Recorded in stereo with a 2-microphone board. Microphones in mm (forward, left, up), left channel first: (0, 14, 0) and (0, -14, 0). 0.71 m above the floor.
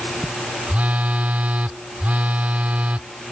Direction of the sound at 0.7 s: 70° right (ahead or behind).